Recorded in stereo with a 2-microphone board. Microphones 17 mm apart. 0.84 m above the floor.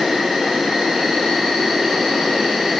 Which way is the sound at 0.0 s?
75° right (ahead or behind).